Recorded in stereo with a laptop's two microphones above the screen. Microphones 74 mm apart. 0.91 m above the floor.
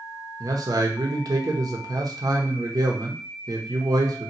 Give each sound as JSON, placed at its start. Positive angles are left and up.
{"t": 0.4, "sound": "a man speaking", "side_deg": -55, "distance_m": 0.8}